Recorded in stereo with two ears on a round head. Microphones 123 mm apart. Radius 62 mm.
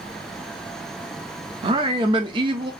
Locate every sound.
1.6 s a man speaking: 35° right (ahead or behind), 0.8 m